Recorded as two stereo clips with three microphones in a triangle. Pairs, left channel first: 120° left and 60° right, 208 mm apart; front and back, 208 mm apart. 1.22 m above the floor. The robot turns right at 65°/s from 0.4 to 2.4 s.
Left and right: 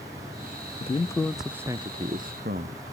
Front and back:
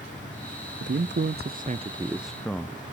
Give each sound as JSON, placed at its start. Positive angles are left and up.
{"t": 0.8, "sound": "a man speaking", "azimuth_deg": 175, "distance_m": 0.6}